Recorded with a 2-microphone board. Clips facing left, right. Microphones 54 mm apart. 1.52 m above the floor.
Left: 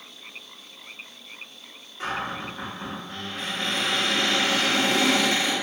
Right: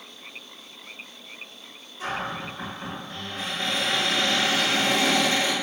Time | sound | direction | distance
2.0 | a cupboard door | 45° left (ahead or behind) | 1.2 m